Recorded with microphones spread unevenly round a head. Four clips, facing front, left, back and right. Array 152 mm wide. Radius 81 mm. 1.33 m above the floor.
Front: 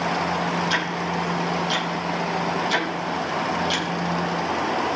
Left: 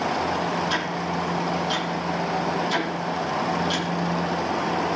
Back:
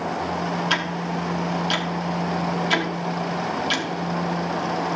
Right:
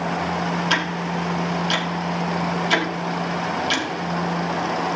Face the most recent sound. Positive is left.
turn(degrees=-110)